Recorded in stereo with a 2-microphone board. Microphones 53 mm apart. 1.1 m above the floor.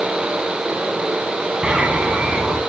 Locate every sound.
1.6 s a bird: 20° right (ahead or behind), 1.8 m